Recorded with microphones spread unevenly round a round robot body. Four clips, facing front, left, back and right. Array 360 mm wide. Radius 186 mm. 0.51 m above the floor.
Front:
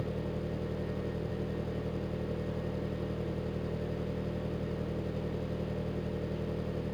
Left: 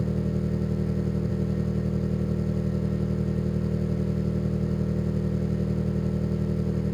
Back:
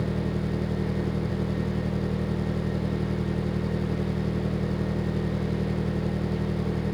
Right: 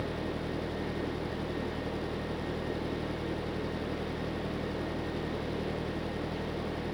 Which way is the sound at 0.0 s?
120° left.